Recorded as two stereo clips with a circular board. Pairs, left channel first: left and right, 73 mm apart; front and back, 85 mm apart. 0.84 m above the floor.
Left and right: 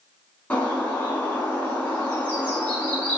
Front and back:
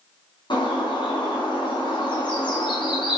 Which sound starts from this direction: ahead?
A bird, at 0.5 s.